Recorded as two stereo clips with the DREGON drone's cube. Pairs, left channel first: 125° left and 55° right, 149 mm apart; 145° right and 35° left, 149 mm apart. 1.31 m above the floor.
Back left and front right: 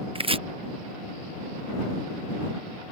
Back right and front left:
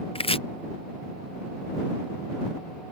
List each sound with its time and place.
0.1 s chopping: 100° right